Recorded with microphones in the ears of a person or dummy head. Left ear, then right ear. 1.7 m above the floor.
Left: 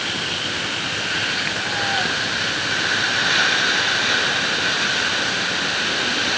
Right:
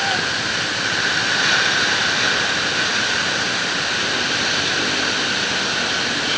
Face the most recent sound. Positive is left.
No sound to turn to.